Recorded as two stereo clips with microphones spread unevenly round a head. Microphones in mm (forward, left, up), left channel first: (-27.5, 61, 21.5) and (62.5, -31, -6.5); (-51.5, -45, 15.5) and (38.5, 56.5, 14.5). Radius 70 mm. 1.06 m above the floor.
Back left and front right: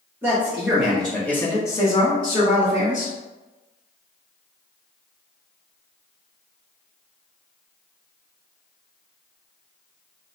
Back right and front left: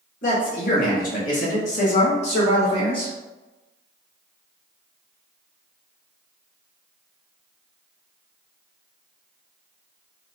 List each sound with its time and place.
0.2 s a man speaking: 115° right, 1.5 m; by 3.1 s 175° left, 1.7 m